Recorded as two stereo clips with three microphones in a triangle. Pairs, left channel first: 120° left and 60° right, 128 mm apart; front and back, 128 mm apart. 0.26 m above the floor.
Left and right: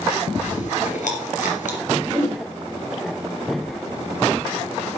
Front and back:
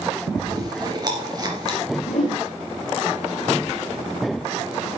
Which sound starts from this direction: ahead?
A whoosh, at 2.1 s.